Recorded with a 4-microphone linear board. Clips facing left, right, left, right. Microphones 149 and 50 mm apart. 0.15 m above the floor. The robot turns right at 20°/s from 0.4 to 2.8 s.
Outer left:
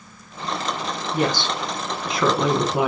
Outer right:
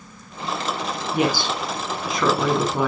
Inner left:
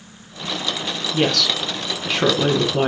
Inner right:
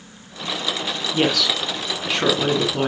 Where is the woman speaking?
15° right, 2 m; by 2.9 s 15° left, 2 m.